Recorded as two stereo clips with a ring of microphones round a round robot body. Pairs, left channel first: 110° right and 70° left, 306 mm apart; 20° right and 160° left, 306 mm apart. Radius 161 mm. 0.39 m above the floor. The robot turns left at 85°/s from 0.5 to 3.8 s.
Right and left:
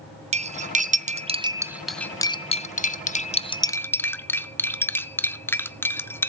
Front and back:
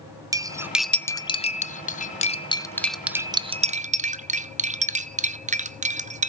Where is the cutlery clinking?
95° left, 0.6 m; by 6.3 s 175° left, 0.6 m.